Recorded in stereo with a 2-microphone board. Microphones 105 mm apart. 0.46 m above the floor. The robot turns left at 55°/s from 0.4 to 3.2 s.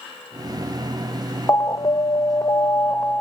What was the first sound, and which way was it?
An alarm, 120° left.